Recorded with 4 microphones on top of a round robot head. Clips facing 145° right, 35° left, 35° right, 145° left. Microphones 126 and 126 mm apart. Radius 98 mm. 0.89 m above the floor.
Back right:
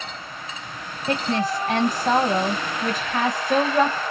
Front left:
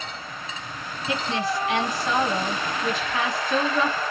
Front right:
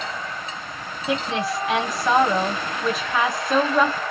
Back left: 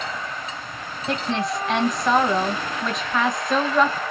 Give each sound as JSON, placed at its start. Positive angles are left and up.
{"t": 1.1, "sound": "a woman speaking", "azimuth_deg": -120, "distance_m": 0.9}